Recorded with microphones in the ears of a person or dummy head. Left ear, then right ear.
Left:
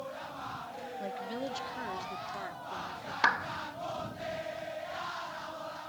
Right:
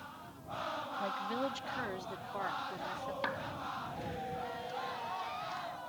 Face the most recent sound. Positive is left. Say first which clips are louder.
# left 12 dB
turn(degrees=50)  # may be behind; listen again after turning